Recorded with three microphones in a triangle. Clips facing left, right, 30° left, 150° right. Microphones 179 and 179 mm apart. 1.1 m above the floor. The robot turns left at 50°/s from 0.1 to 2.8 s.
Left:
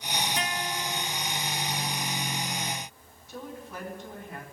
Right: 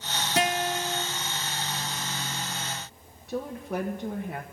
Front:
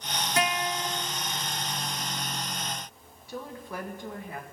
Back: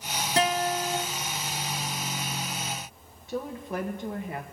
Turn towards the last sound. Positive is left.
turn(degrees=-80)